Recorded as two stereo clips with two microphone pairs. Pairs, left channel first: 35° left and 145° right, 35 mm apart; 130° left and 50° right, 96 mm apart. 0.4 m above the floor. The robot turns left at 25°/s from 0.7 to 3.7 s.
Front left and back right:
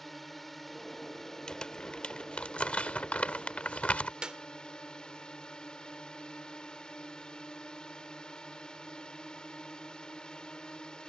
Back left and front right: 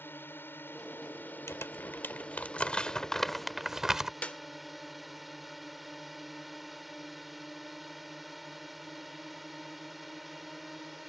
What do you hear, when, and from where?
0.0 s a drone: 115° left; by 11.1 s 40° left
1.5 s crumpling: 90° left; by 4.1 s 35° left
4.2 s a clap: 170° right